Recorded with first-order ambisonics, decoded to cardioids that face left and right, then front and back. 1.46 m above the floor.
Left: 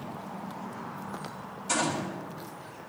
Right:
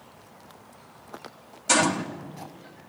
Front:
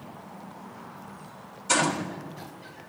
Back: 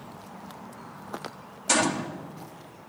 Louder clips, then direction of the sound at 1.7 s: Right 7 dB, even; 135° right.